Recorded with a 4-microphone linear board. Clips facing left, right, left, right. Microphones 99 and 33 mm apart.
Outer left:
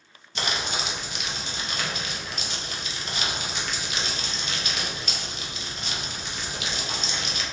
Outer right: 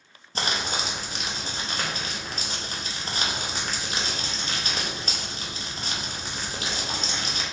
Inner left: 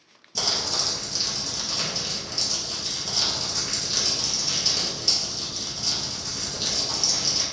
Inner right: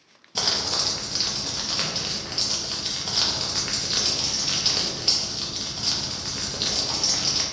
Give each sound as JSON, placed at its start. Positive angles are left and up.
{"t": 0.3, "sound": "crumpling", "side_deg": -40, "distance_m": 0.8}